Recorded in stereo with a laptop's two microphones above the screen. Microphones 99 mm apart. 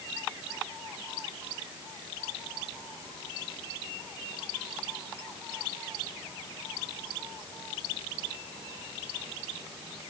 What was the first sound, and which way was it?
Only background noise.